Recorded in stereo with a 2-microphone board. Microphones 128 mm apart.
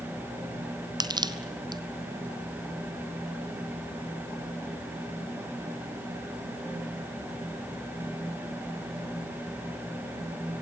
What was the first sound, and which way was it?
Crushing, 35° right (ahead or behind).